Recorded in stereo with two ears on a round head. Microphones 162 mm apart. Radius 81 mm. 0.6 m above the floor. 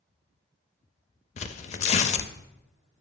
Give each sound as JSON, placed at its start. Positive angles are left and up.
{"t": 1.4, "sound": "tearing paper", "side_deg": 40, "distance_m": 0.5}